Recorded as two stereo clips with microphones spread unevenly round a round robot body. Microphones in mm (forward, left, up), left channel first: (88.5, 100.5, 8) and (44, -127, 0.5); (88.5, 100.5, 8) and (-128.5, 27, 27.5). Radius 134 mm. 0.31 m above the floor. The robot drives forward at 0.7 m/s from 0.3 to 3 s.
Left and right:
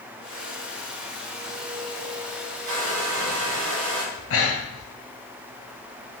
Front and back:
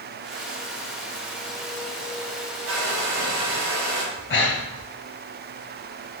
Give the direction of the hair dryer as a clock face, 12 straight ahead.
4 o'clock.